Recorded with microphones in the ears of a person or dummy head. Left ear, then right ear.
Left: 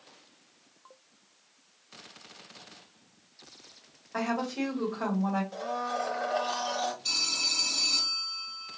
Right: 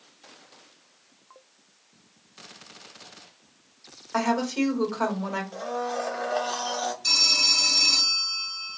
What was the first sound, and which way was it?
A woman speaking, 70° right (ahead or behind).